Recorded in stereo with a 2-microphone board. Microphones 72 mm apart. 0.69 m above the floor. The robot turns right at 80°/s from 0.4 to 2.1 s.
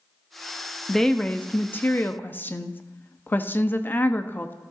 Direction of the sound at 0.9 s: Centre (ahead or behind).